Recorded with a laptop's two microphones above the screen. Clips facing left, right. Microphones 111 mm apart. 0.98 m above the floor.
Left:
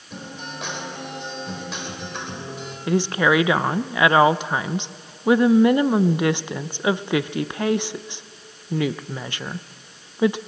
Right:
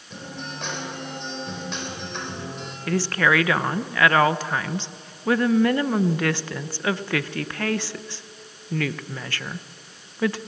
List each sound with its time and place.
0.1 s a guitar: 5° left (ahead or behind), 4 m
2.9 s a woman speaking: 20° left (ahead or behind), 0.5 m